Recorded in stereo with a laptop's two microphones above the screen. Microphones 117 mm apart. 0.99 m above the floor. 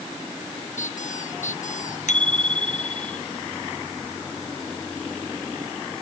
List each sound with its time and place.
0.8 s a squeak: 80° left
2.1 s a bicycle bell: 80° left